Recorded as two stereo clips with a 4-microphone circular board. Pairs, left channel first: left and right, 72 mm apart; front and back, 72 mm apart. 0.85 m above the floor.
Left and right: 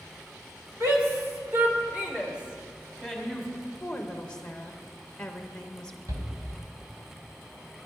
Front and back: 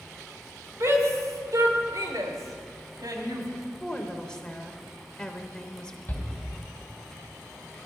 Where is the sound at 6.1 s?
60° right, 3 m.